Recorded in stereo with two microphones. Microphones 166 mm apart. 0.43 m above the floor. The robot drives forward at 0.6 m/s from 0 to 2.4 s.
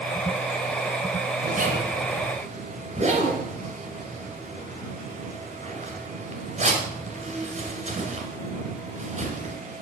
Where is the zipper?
55° right (ahead or behind), 1.7 m; by 9.6 s 40° right (ahead or behind), 2 m.